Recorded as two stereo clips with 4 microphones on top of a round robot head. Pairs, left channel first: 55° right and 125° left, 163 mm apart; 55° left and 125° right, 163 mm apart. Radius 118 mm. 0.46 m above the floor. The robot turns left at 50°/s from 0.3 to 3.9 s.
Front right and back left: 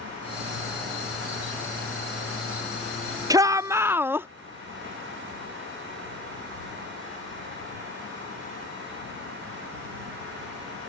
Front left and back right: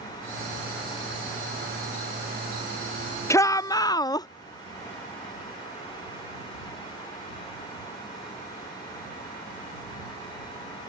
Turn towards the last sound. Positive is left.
turn(degrees=70)